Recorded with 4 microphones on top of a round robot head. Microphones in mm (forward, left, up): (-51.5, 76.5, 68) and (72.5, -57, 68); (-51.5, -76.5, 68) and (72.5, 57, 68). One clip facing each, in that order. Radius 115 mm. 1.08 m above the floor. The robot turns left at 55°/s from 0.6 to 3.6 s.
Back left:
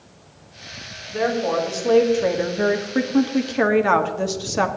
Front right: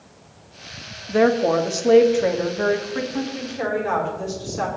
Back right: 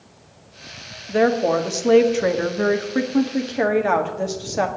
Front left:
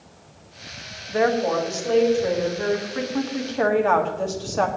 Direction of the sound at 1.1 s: 70° right.